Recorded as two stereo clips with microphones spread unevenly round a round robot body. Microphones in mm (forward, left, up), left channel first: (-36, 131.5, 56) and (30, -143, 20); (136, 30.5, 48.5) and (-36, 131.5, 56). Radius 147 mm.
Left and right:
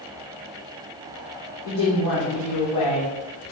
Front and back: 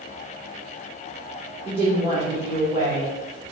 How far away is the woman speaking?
About 3 m.